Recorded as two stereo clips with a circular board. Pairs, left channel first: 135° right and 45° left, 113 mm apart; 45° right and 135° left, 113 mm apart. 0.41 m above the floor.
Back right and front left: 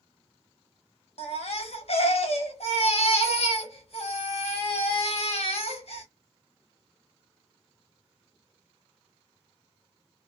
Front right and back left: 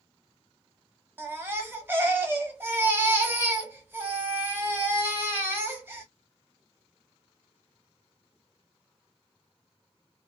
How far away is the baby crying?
About 1.1 m.